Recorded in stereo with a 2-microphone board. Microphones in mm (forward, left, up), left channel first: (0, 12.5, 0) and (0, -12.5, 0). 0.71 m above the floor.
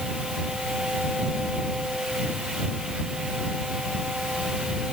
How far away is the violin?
I don't hear a violin.